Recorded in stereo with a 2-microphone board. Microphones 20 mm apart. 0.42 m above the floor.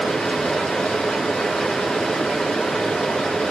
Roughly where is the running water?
Left.